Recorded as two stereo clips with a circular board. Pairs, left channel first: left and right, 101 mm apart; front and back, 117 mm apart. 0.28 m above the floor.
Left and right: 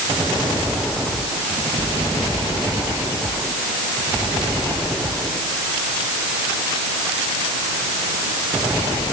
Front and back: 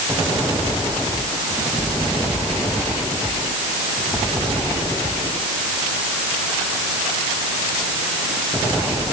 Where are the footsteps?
I don't hear footsteps.